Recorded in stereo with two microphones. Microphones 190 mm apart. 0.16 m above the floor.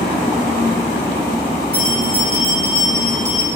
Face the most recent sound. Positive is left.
turn(degrees=55)  # may be behind; listen again after turning